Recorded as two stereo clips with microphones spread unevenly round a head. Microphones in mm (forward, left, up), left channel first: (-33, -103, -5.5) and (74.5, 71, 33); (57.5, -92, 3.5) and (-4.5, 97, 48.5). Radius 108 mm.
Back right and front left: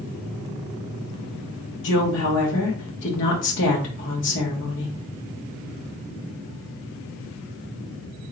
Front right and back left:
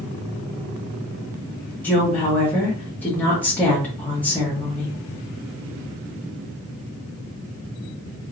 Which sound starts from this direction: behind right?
A woman speaking, at 1.8 s.